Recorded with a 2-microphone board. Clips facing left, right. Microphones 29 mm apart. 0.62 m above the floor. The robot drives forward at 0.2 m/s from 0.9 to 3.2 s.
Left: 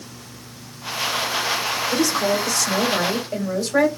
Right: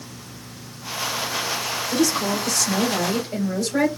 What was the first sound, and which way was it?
A woman speaking, 35° left (ahead or behind).